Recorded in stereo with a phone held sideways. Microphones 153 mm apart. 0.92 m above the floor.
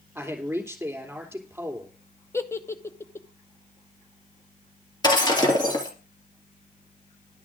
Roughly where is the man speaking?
Centre.